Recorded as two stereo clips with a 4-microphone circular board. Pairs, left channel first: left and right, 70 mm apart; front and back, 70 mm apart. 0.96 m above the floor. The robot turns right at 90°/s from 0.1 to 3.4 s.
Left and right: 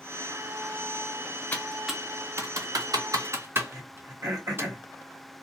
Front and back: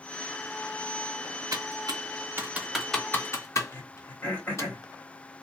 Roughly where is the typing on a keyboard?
Behind left.